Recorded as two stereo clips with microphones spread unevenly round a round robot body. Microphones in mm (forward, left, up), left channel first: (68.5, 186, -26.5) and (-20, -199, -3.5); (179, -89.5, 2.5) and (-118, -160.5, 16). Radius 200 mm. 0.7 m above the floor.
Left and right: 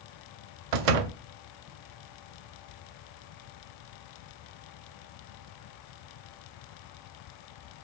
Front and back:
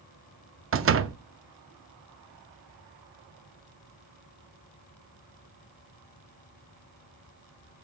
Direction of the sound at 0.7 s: 115° right.